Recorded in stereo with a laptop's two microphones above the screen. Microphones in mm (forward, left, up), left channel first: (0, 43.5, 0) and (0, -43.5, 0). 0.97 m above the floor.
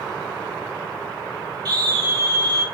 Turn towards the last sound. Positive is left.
turn(degrees=-45)  # may be behind; listen again after turning